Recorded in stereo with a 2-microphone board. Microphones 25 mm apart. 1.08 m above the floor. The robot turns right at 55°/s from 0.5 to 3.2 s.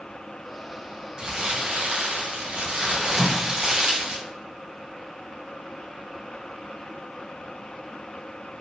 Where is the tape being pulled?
20° right (ahead or behind), 1.1 m.